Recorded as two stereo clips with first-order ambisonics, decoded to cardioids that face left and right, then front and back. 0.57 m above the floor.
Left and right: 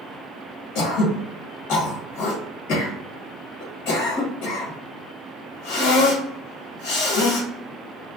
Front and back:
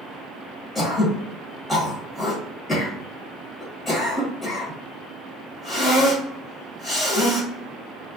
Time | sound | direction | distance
0.8 | throat clearing | 80° left | 1.1 m